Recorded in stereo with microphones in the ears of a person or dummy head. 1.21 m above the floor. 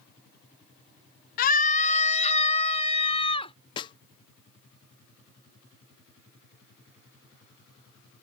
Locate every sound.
1.4 s a scream: 50° left (ahead or behind); by 3.5 s 30° left (ahead or behind)
3.8 s a snare drum: 20° left (ahead or behind)